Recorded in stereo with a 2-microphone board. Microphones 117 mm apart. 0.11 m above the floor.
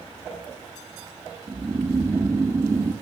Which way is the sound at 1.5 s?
25° right (ahead or behind).